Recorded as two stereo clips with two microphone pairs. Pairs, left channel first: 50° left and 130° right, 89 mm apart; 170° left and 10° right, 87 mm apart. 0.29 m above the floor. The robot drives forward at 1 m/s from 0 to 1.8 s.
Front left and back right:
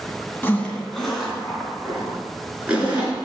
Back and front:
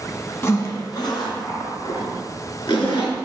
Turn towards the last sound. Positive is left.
turn(degrees=155)